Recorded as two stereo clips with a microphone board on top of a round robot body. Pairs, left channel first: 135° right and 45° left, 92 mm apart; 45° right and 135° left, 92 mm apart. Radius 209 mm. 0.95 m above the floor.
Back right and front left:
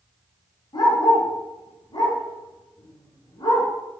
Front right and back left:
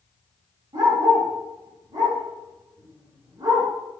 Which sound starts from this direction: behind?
A dog barking, at 0.7 s.